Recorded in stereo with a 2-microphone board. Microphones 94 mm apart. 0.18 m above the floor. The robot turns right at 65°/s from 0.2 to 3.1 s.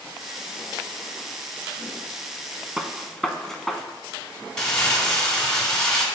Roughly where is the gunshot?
Centre.